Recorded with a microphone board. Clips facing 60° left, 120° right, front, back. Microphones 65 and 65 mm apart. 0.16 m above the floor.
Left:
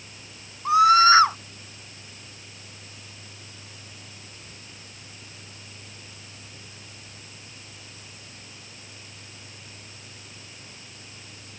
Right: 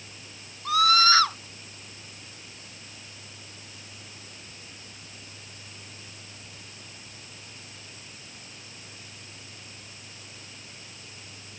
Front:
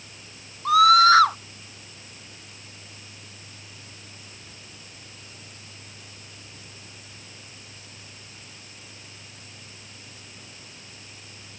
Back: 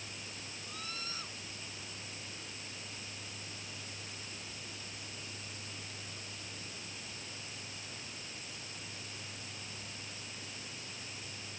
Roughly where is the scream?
Ahead.